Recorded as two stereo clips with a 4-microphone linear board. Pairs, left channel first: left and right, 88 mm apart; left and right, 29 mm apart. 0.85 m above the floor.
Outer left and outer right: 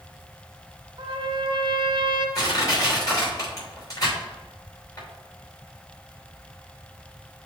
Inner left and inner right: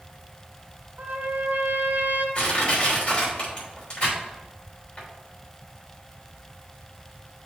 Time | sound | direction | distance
1.0 | a trumpet | 65° right (ahead or behind) | 1.2 m
2.4 | crushing | 40° left (ahead or behind) | 3 m